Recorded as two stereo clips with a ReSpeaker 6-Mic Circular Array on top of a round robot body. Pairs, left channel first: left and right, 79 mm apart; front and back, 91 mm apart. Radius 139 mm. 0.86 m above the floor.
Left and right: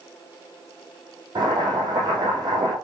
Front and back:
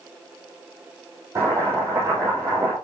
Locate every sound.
1.4 s boiling: 125° right, 6.5 m